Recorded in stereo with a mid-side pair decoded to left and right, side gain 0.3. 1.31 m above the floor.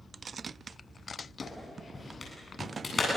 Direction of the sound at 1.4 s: 40° left.